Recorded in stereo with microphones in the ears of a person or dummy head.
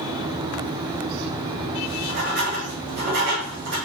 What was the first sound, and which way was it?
Writing, 65° right (ahead or behind).